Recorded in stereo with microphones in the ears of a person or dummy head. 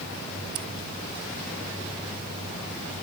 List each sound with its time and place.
0.6 s scissors: 50° right (ahead or behind)